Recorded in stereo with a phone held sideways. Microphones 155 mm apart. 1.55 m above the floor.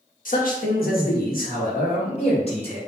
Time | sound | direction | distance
0.2 | a man speaking | 65° left (ahead or behind) | 1.4 m